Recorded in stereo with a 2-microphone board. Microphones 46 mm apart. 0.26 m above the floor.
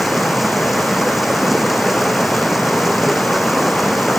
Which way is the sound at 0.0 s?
5° right (ahead or behind).